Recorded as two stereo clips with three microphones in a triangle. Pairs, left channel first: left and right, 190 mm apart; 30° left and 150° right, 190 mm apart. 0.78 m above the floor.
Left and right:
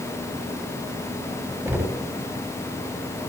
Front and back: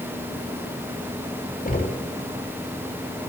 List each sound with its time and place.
1.6 s knocking: 10° right, 3 m